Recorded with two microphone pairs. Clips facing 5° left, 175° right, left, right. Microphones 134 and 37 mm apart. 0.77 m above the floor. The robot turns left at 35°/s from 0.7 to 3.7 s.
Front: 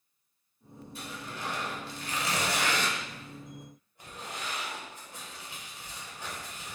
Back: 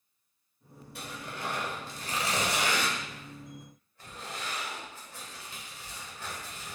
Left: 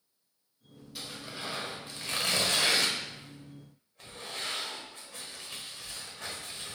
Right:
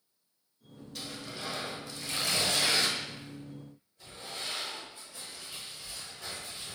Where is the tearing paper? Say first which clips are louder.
Back 1 dB, even; 170° left, 1.0 m; by 6.8 s 75° left, 1.0 m.